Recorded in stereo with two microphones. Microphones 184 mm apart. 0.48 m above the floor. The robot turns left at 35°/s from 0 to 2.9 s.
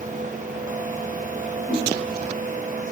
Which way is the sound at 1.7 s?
30° left (ahead or behind).